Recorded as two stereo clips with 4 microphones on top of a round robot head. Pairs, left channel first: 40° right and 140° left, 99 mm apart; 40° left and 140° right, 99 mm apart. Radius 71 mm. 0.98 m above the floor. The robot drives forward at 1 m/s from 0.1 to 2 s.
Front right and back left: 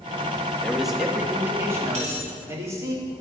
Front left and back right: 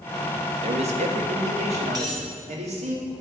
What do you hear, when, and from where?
0.6 s a man speaking: 125° right, 1.1 m; by 3.0 s 155° right, 2 m
1.9 s a dropped coin: 165° left, 3 m